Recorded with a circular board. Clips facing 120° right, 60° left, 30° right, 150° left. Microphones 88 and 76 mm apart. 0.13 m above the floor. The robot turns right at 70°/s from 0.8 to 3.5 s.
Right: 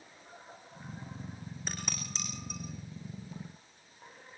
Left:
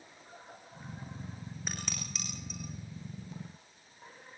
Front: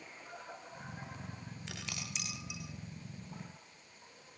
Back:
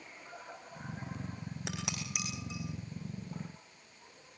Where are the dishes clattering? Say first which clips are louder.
Right 1 dB, back 5 dB; 145° left, 6.5 m; by 2.6 s 150° right, 6.5 m.